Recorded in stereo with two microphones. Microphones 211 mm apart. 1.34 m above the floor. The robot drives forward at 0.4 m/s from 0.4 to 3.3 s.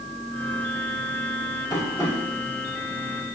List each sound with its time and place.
1.7 s tapping: 20° left (ahead or behind), 6.5 m; by 2.1 s 15° left (ahead or behind), 6.5 m